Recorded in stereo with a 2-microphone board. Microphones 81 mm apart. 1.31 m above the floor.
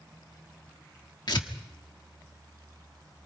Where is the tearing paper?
65° left (ahead or behind), 1.4 m.